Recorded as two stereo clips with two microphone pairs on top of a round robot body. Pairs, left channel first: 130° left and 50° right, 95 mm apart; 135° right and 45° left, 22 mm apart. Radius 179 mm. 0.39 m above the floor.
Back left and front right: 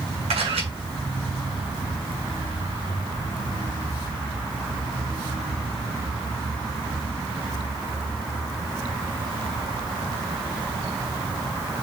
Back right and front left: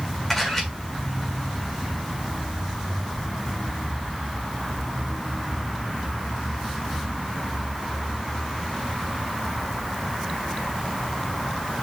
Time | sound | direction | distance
0.3 | a camera shutter | 60° right | 7 m